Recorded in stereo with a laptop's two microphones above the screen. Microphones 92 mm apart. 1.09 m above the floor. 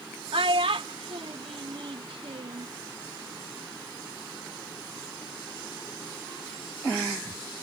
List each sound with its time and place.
0.3 s a child speaking: 75° right (ahead or behind)